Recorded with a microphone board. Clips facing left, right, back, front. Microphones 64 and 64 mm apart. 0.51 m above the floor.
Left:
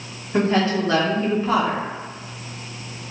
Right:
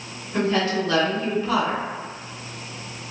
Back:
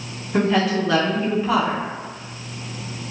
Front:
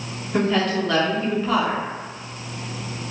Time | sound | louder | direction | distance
0.3 | a woman speaking | left 3 dB, back 2 dB | 100° left | 0.7 m